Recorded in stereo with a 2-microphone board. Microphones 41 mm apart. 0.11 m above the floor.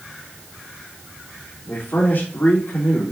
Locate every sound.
1.7 s a man speaking: 60° left (ahead or behind), 4.5 m